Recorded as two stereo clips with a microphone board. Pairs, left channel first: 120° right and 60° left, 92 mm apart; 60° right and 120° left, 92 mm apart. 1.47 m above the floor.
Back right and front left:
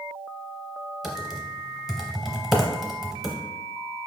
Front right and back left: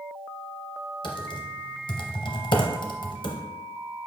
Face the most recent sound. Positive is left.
turn(degrees=-25)